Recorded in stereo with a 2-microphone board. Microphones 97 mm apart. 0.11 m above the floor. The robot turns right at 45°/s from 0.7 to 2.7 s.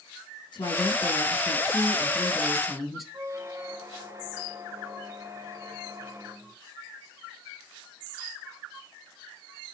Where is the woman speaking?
95° left, 2.5 m; by 3.0 s 175° right, 2.5 m.